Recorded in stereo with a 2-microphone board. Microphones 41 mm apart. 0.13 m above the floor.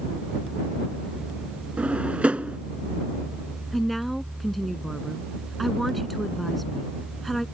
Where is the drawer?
35° right (ahead or behind).